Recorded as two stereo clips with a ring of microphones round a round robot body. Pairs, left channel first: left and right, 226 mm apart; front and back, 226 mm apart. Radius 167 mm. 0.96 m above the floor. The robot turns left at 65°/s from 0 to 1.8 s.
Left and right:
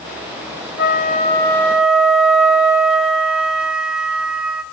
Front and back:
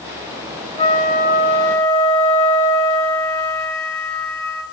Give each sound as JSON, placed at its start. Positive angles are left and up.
{"t": 0.8, "sound": "a flute", "azimuth_deg": 65, "distance_m": 4.0}